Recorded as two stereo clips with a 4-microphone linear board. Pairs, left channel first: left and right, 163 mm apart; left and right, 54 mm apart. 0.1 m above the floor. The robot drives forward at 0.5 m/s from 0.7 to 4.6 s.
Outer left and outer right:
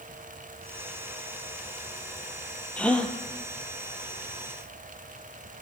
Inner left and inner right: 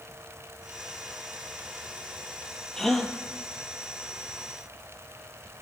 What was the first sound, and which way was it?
A gasp, 10° left (ahead or behind).